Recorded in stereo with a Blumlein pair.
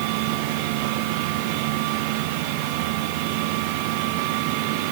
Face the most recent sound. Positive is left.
No sound to turn to.